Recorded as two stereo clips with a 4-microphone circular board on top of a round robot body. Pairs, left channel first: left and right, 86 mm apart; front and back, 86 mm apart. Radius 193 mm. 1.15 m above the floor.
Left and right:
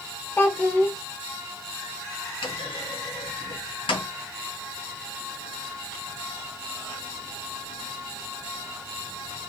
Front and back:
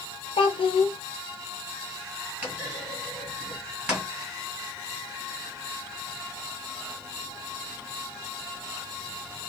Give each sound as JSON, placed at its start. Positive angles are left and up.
{"t": 0.4, "sound": "a child speaking", "azimuth_deg": 20, "distance_m": 0.7}
{"t": 2.4, "sound": "a clunk", "azimuth_deg": 105, "distance_m": 1.9}